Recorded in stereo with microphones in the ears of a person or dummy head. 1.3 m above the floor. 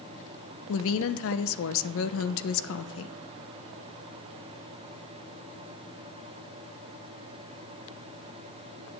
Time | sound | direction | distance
0.7 | a woman speaking | 65° left (ahead or behind) | 0.9 m